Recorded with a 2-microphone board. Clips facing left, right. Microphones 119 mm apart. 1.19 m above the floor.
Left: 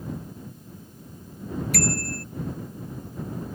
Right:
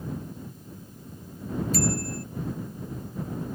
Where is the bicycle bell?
75° left (ahead or behind).